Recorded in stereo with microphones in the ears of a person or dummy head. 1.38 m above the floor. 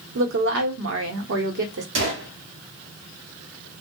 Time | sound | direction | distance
0.1 | a woman speaking | 60° right (ahead or behind) | 1.0 m
1.9 | a gunshot | 60° right (ahead or behind) | 1.0 m